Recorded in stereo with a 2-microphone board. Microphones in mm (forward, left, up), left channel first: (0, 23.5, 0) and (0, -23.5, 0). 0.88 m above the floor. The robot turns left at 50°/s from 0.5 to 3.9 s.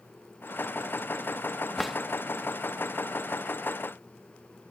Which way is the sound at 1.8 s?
5° left (ahead or behind).